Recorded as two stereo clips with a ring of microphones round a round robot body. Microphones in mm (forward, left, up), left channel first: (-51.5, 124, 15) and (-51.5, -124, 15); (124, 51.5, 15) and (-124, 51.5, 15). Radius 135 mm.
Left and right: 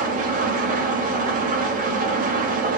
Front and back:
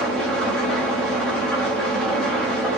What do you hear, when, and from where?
0.0 s an engine running: 85° right, 0.8 m